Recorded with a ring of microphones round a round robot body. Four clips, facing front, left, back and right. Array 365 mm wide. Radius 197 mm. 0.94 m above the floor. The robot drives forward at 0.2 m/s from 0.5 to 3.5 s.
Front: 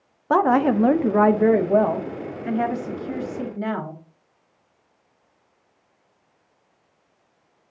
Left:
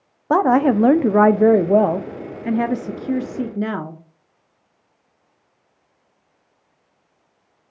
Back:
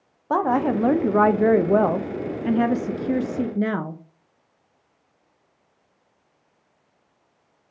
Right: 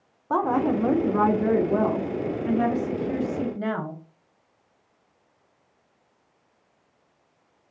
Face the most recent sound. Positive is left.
turn(degrees=140)